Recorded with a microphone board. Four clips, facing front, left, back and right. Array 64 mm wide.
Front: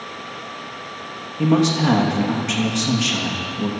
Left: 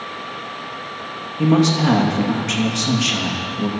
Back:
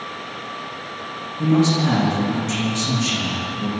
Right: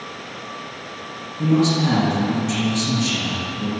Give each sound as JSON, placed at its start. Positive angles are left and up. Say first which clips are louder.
{"t": 1.4, "sound": "a man speaking", "louder": "left 2 dB, even", "azimuth_deg": 40, "distance_m": 3.0}